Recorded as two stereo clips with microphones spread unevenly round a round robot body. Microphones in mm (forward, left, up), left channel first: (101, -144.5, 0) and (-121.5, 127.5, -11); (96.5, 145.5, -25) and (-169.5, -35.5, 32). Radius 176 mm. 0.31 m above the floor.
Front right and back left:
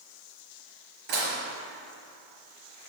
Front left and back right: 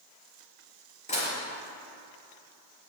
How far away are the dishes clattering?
About 4 m.